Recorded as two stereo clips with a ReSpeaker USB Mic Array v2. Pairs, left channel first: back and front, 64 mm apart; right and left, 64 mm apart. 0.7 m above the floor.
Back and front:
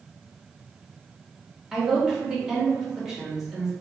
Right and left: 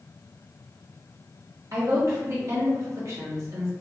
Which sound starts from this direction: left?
A woman speaking, at 1.7 s.